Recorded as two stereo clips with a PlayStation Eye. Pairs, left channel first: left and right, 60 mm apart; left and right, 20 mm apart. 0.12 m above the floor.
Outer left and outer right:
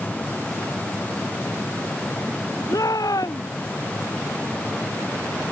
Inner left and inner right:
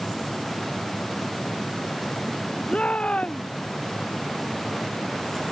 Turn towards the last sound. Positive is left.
turn(degrees=85)